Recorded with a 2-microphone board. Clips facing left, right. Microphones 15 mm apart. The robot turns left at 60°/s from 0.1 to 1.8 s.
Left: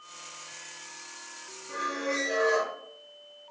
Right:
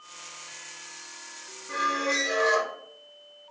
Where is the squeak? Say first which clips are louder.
Right 5 dB; 65° right (ahead or behind), 0.7 m.